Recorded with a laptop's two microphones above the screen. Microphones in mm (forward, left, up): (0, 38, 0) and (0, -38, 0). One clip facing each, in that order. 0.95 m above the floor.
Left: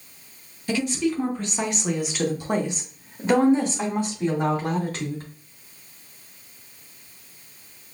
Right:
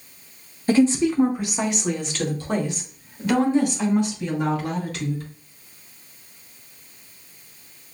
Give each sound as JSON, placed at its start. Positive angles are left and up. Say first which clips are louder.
{"t": 0.7, "sound": "a woman speaking", "louder": "right 7 dB", "side_deg": -40, "distance_m": 0.8}